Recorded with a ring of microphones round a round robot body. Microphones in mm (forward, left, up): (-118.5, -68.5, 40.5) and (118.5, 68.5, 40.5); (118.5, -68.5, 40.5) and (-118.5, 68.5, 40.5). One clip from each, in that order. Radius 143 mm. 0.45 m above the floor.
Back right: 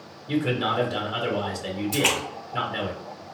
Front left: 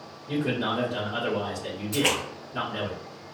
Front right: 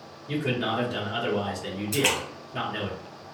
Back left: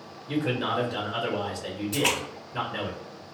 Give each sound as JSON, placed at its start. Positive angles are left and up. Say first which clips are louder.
{"t": 0.3, "sound": "a man speaking", "louder": "back right 3 dB, even", "azimuth_deg": -110, "distance_m": 1.8}
{"t": 1.9, "sound": "a splash", "louder": "back right 1 dB, front right 1 dB", "azimuth_deg": -80, "distance_m": 1.9}